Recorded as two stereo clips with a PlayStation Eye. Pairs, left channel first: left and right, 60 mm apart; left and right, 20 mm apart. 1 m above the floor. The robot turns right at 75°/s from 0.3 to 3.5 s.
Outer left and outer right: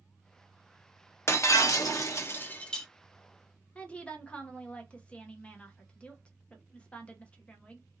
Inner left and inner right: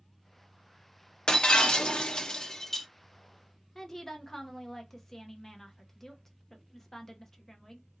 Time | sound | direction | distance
1.3 | breaking glass | 55° left | 0.7 m
3.8 | a woman speaking | 20° left (ahead or behind) | 0.8 m